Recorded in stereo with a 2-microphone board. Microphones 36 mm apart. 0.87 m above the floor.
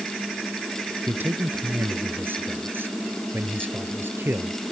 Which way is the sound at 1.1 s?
70° right (ahead or behind).